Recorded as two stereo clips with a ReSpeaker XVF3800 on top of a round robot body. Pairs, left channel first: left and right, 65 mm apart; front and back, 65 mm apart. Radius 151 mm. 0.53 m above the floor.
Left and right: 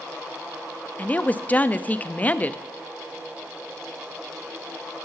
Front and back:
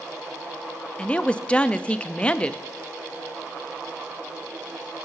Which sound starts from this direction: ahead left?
A woman speaking, at 1.0 s.